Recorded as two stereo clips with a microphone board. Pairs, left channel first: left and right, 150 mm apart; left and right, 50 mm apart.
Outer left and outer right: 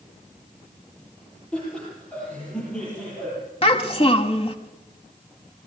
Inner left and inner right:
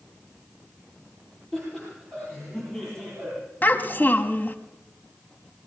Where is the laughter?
5° left (ahead or behind), 9.5 m; by 3.4 s 10° left (ahead or behind), 10.5 m.